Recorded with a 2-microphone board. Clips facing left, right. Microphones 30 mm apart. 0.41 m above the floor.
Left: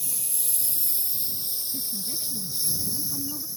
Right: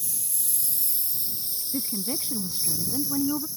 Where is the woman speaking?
65° right (ahead or behind).